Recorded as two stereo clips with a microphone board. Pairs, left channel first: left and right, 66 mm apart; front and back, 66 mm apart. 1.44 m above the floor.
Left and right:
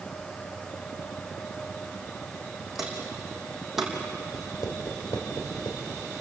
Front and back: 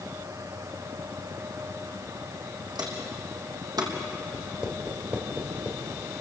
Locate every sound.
2.8 s footsteps: 175° right, 5.5 m; by 3.9 s 170° right, 4 m
4.3 s writing: 105° left, 4 m